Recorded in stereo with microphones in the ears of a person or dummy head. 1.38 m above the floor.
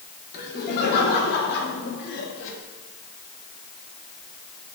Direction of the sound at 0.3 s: 55° left (ahead or behind).